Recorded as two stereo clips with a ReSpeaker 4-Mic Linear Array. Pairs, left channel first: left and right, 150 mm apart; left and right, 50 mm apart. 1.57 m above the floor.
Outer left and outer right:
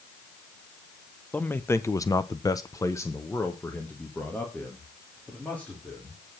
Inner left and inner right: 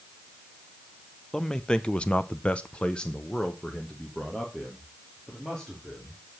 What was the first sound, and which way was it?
A man speaking, 10° left (ahead or behind).